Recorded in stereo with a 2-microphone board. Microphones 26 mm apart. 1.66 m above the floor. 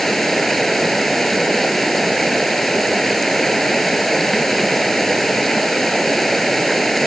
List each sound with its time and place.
0.0 s running water: 5° left (ahead or behind)